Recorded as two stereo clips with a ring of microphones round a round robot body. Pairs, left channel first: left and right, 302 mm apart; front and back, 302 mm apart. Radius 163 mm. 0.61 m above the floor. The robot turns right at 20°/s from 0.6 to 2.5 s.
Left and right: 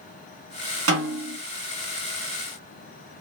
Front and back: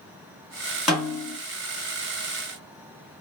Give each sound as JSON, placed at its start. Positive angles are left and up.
{"t": 0.9, "sound": "a snare drum", "azimuth_deg": -90, "distance_m": 1.5}